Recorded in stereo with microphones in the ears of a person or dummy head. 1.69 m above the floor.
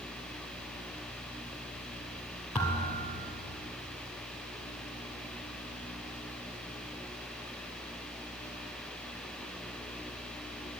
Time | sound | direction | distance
2.5 | a thud | 5° left (ahead or behind) | 2 m